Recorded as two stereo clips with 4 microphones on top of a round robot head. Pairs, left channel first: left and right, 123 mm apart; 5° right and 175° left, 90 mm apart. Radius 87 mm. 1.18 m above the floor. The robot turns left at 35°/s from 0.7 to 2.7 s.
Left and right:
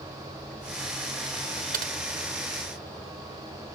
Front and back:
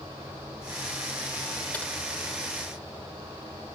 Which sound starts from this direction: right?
Typing on a keyboard, at 1.7 s.